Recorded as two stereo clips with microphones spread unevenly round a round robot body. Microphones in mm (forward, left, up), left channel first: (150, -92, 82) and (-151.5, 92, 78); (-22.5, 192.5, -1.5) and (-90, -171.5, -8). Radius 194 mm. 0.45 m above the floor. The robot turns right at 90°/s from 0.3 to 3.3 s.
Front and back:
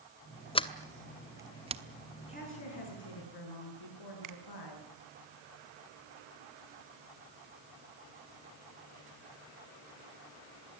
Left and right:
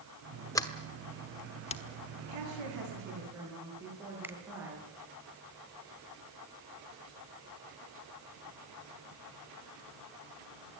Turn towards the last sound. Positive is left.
turn(degrees=175)